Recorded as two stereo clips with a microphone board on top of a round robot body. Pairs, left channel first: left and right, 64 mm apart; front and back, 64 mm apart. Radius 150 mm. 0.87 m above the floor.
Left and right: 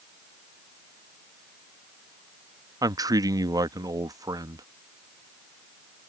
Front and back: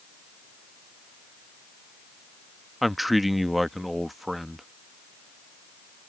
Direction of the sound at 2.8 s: 90° right.